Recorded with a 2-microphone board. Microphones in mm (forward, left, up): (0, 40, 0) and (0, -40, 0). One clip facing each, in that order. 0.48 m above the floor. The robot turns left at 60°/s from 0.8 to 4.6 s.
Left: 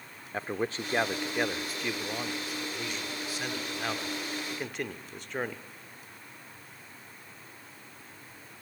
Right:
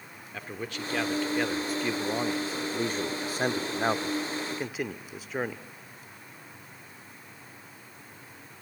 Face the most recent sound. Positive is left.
turn(degrees=-175)